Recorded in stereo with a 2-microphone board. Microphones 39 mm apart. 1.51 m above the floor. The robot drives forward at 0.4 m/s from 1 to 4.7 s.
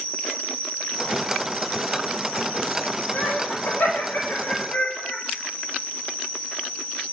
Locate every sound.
0.0 s an insect: 85° left, 3 m; by 7.1 s 70° left (ahead or behind), 3.5 m
3.1 s laughter: 80° left, 5 m; by 5.2 s 70° left (ahead or behind), 5 m